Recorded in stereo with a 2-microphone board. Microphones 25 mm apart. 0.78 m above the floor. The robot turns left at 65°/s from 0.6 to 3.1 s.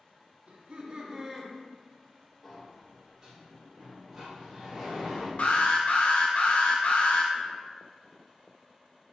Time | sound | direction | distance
0.5 | laughter | 120° right | 1.1 m
2.4 | a sliding door | 15° left | 1.2 m
5.4 | an alarm | 65° left (ahead or behind) | 0.8 m